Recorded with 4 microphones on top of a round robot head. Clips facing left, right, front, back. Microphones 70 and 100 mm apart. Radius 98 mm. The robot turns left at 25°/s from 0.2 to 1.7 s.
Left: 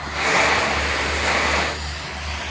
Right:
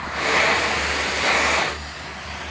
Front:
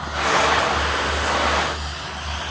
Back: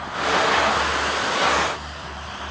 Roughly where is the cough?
No cough in this recording.